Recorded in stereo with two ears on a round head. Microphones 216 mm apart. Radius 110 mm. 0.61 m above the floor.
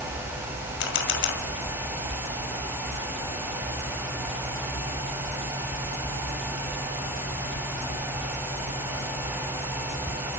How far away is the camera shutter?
About 2 m.